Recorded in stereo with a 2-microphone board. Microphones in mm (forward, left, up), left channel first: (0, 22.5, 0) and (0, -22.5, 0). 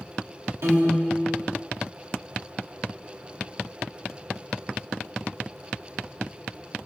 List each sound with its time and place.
0.6 s a piano: 75° right (ahead or behind), 4 m